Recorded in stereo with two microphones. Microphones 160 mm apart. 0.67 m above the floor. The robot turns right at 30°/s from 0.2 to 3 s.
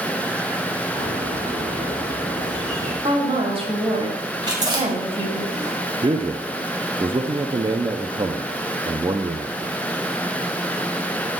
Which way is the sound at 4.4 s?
25° right (ahead or behind).